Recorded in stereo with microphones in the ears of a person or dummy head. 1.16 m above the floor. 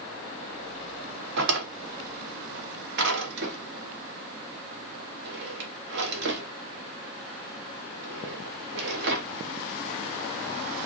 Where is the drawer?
60° right (ahead or behind), 1.0 m.